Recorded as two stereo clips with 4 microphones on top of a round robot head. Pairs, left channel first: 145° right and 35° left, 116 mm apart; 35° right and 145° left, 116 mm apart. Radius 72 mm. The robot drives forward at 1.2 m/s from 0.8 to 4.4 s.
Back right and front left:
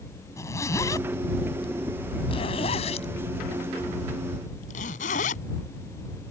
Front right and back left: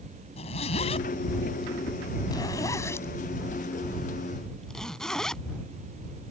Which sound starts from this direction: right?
A zipper, at 0.4 s.